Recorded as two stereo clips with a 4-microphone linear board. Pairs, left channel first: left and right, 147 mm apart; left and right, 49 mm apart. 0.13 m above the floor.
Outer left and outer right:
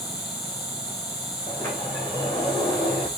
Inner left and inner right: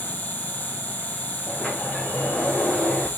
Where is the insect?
30° left (ahead or behind), 5 m.